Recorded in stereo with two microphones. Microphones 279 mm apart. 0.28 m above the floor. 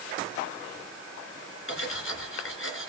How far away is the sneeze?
No sneeze in this recording.